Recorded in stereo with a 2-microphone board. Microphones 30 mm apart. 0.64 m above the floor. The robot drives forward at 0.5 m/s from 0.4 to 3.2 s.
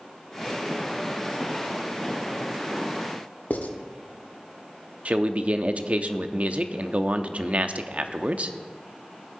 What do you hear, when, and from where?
3.5 s writing: 65° left (ahead or behind), 1.0 m
5.0 s a man speaking: 45° right (ahead or behind), 0.7 m